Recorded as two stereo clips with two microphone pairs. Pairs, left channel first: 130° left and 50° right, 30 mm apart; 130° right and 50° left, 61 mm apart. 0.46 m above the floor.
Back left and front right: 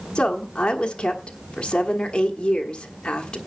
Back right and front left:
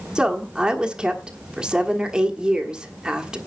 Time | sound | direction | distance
0.1 | a woman speaking | 115° left | 1.3 m